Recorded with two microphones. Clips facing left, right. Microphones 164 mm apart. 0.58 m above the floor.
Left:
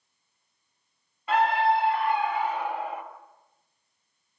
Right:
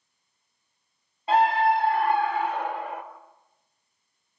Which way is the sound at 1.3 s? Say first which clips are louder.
Right 2 dB; 35° right (ahead or behind).